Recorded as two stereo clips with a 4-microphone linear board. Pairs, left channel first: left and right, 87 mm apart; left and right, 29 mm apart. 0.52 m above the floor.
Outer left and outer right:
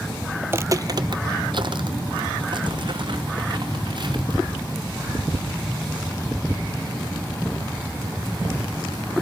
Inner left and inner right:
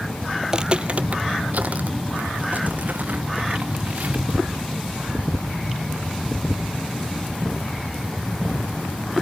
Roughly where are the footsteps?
Right.